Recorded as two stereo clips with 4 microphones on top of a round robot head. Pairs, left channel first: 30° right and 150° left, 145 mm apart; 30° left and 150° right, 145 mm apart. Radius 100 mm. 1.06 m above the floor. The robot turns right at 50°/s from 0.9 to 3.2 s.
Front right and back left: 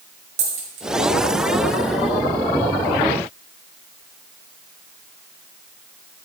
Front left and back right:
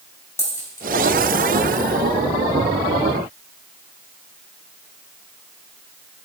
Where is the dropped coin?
105° left, 2 m.